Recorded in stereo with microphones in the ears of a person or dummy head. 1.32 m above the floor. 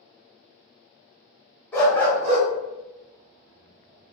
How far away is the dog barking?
About 0.9 m.